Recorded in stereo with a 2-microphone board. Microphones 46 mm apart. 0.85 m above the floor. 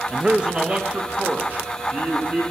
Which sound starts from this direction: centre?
A man speaking, at 0.1 s.